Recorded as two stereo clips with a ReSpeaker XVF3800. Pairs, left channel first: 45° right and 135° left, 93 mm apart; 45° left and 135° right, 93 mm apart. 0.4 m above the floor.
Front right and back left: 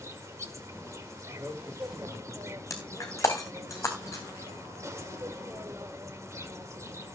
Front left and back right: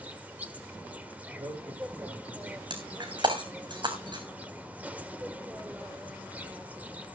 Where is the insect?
165° left, 1.6 m.